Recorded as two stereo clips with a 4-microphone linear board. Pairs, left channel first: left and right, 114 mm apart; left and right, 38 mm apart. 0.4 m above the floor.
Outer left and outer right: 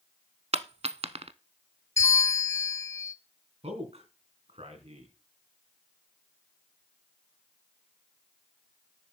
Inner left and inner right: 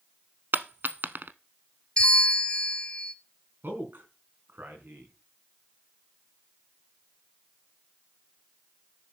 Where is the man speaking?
65° right (ahead or behind), 4 m.